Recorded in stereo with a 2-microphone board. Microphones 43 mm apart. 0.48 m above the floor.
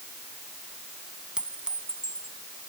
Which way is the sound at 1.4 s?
20° right (ahead or behind).